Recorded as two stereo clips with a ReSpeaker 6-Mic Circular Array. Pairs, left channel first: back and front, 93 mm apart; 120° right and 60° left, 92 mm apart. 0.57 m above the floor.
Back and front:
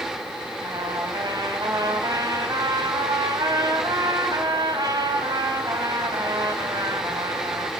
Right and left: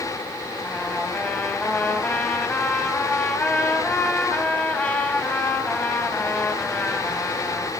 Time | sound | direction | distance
0.6 | a trumpet | 45° right | 3 m